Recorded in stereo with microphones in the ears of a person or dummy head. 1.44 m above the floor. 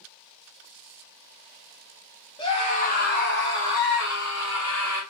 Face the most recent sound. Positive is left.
turn(degrees=85)